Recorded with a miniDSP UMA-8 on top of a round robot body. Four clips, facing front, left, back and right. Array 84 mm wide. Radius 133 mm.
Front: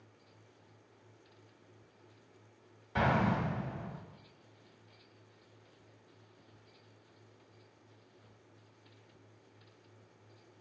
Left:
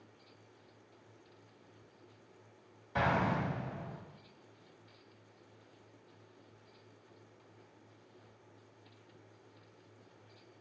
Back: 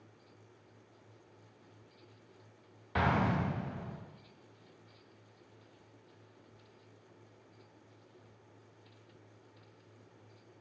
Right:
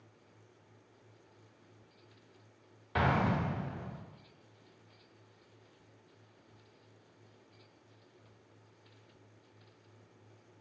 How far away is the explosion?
About 1.3 m.